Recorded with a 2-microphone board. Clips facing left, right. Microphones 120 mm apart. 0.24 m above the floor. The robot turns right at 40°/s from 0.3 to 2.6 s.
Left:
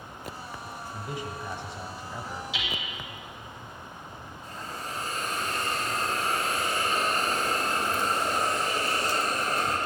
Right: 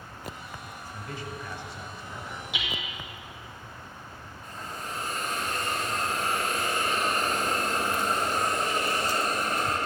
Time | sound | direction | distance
0.9 | a man speaking | 15° left (ahead or behind) | 1.0 m
2.5 | hammering | 60° right (ahead or behind) | 2.5 m
4.4 | a hiss | 50° right (ahead or behind) | 4 m